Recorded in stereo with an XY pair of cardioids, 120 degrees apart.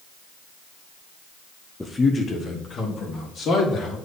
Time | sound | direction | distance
1.8 | a man speaking | 10° left | 0.7 m